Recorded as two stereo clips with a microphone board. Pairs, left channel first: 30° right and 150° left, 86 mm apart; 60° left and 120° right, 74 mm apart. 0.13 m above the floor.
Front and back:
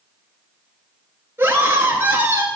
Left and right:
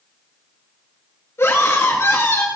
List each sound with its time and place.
1.4 s a scream: 95° left, 2 m